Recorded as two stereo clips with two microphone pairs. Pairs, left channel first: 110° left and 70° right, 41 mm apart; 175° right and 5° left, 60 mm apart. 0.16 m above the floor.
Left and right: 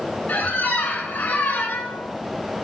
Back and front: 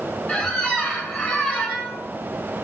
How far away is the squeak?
About 0.7 m.